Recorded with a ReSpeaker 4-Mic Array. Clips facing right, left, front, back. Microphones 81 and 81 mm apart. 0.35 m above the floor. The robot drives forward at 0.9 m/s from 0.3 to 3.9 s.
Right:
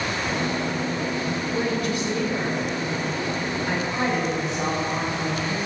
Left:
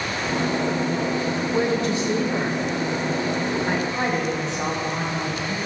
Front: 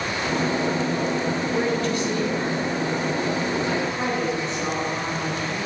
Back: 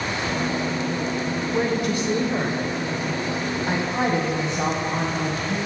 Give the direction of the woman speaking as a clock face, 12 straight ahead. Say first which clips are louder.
Left 4 dB, back 2 dB; 9 o'clock.